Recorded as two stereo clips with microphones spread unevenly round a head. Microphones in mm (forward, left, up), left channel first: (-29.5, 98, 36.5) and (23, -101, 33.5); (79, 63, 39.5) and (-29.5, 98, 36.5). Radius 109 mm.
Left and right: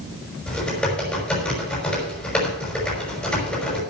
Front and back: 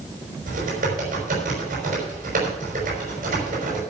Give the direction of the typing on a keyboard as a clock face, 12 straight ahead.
6 o'clock.